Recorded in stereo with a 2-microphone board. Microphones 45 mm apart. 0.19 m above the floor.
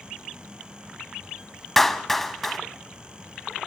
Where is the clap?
5° left (ahead or behind), 1.1 m.